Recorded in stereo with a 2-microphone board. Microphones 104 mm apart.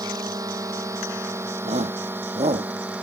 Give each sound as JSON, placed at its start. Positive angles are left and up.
{"t": 0.0, "sound": "a drone", "side_deg": -35}
{"t": 1.6, "sound": "a shout", "side_deg": -80}